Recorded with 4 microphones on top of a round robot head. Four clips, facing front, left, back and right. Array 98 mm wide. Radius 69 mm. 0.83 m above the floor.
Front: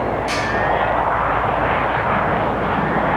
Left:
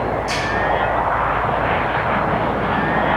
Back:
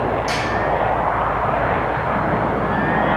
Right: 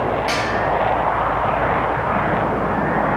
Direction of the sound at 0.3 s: 120° right.